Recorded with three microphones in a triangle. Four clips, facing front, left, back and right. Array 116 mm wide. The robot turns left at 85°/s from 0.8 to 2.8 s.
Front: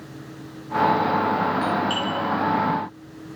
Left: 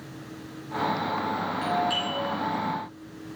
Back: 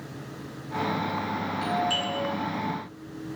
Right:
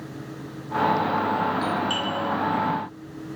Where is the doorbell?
15° left, 3 m; by 2.1 s 25° right, 3 m.